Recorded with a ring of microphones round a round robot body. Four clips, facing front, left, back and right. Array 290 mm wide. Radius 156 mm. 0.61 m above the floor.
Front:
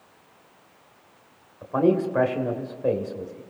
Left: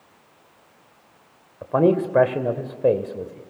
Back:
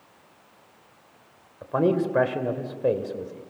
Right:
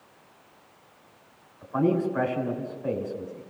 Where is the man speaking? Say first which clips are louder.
Left 6 dB, front 1 dB; 100° left, 2.5 m.